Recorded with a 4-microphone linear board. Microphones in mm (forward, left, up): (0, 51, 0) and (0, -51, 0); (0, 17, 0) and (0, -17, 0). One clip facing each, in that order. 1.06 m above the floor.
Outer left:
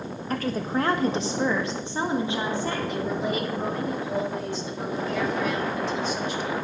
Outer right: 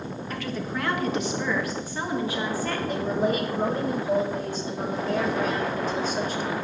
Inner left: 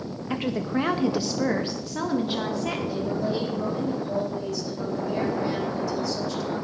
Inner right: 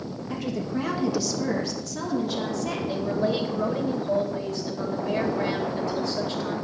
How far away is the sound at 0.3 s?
About 0.8 m.